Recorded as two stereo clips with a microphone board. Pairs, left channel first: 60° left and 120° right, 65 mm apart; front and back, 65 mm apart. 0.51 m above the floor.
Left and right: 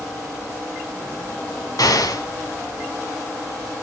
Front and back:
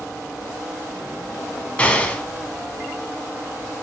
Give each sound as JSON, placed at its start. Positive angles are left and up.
{"t": 1.8, "sound": "an explosion", "azimuth_deg": 70, "distance_m": 1.8}